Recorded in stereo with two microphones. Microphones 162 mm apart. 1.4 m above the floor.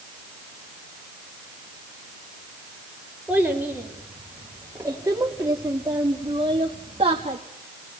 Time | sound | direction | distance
3.3 | a child speaking | 5° right (ahead or behind) | 3 m